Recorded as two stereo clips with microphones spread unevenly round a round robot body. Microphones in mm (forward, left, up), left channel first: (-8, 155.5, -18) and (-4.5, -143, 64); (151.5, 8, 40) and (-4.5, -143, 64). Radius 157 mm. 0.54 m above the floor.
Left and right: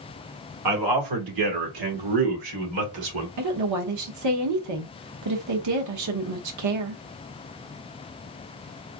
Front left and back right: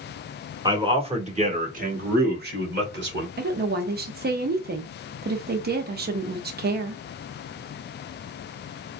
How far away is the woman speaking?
About 0.9 m.